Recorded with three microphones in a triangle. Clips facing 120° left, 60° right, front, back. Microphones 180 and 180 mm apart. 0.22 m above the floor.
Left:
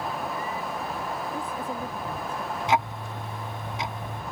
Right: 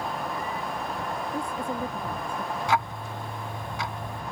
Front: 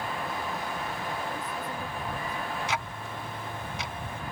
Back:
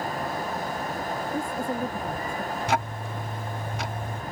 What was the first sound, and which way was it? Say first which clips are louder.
A woman speaking: right 2 dB, back 7 dB; 135° right.